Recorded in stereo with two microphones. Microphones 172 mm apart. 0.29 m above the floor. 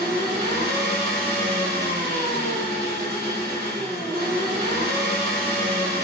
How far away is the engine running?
About 0.9 m.